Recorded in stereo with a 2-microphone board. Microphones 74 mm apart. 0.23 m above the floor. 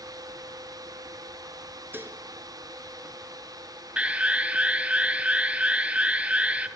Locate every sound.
1.9 s dishes clattering: 30° right (ahead or behind), 2 m
4.0 s an alarm: 15° right (ahead or behind), 1.8 m